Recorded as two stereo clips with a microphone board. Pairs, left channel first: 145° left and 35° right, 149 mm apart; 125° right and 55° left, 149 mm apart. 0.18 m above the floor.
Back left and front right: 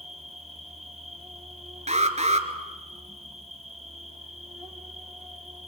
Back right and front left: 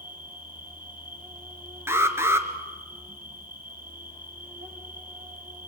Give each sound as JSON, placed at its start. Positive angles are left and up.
{"t": 0.0, "sound": "an insect", "azimuth_deg": 55, "distance_m": 4.5}
{"t": 1.9, "sound": "an alarm", "azimuth_deg": -15, "distance_m": 2.0}